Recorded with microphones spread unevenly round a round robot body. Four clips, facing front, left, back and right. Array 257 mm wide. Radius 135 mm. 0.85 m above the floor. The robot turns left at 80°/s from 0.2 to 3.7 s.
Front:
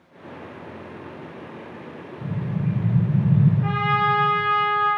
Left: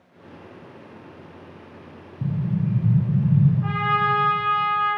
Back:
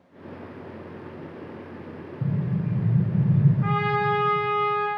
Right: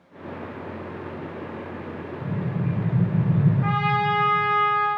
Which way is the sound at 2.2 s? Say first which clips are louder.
Left 3 dB, even; 125° left.